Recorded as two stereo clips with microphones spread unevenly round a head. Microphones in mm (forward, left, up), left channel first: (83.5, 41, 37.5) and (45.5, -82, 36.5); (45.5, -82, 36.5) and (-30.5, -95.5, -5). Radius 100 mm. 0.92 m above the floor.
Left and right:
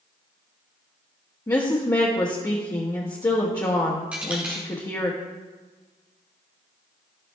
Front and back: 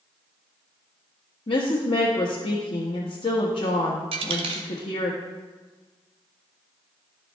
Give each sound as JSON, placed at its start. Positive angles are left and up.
{"t": 1.5, "sound": "a woman speaking", "azimuth_deg": 10, "distance_m": 1.4}
{"t": 4.1, "sound": "a dropped coin", "azimuth_deg": 170, "distance_m": 0.9}